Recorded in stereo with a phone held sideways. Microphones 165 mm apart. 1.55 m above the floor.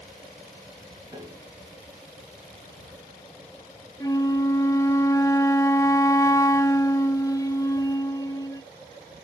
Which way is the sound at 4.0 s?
20° left (ahead or behind).